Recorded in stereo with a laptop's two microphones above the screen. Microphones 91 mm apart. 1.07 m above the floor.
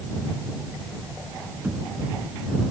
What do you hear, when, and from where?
1.6 s knocking: 10° right (ahead or behind)